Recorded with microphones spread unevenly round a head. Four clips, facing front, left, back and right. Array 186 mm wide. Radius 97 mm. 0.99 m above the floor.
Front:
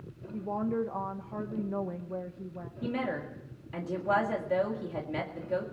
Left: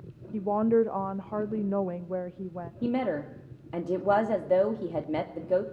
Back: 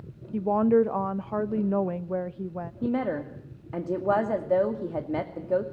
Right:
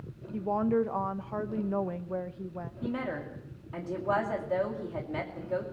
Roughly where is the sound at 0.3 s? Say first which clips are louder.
Left 4 dB, back 10 dB; behind left.